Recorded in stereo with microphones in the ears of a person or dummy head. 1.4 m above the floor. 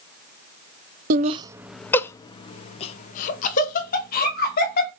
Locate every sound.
1.1 s laughter: 45° right (ahead or behind), 0.6 m; by 4.9 s 50° left (ahead or behind), 2.5 m